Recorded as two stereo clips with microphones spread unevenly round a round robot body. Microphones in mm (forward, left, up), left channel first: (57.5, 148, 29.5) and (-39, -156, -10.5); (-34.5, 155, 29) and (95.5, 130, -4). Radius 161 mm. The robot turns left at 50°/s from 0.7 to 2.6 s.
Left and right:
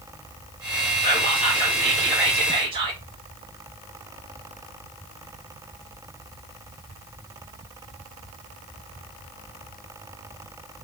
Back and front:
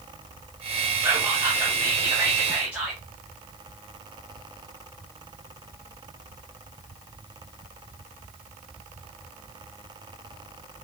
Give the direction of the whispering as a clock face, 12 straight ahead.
11 o'clock.